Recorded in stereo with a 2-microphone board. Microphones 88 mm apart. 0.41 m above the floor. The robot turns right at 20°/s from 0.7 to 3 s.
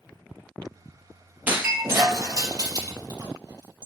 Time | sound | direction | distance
1.5 | breaking glass | 20° right (ahead or behind) | 3.5 m